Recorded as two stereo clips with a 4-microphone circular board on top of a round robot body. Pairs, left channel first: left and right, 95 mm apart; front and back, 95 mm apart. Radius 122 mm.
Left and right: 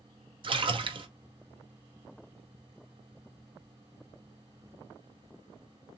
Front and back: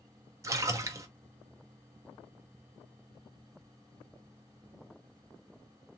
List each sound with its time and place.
0.4 s a splash: 120° right, 0.7 m